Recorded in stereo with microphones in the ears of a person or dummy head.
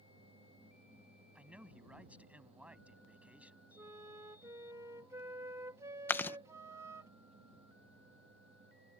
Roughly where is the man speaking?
Centre.